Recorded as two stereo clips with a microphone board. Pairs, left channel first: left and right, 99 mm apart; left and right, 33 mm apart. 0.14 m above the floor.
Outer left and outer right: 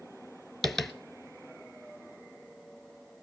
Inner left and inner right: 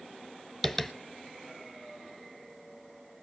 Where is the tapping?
Centre (ahead or behind), 0.8 m.